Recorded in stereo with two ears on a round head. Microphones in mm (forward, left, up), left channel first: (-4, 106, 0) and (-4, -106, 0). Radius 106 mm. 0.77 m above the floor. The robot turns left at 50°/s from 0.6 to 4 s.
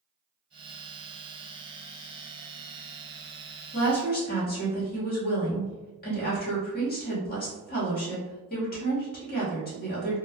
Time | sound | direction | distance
3.7 | a woman speaking | 50° left (ahead or behind) | 1.4 m